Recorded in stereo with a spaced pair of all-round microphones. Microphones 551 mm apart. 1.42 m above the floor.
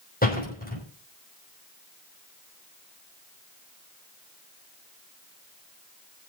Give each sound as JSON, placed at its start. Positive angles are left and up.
{"t": 0.2, "sound": "a door slam", "side_deg": 15, "distance_m": 5.5}